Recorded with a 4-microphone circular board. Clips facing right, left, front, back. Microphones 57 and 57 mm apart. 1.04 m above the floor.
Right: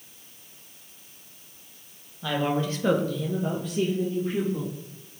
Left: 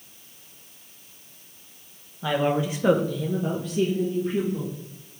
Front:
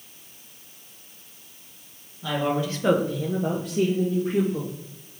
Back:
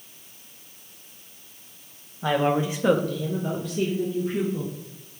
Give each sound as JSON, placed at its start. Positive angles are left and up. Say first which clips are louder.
{"t": 2.2, "sound": "a woman speaking", "louder": "left 3 dB, back 3 dB", "azimuth_deg": 160, "distance_m": 0.9}